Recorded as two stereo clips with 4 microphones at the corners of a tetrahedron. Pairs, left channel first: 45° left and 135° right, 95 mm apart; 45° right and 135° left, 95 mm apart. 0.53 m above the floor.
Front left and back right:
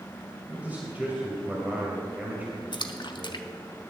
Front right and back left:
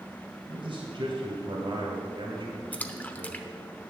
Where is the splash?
25° left, 0.7 m.